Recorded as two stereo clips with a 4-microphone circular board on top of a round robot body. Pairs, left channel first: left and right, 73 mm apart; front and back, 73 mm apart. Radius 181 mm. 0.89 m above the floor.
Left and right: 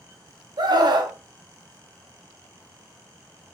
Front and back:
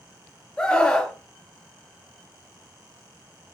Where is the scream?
80° right, 0.8 m.